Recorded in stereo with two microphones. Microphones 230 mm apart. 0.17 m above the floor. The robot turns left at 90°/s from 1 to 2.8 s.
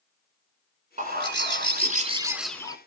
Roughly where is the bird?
Ahead right.